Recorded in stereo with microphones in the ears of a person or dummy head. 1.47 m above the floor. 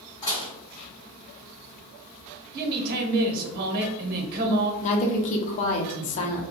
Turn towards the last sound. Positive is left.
turn(degrees=35)  # may be behind; listen again after turning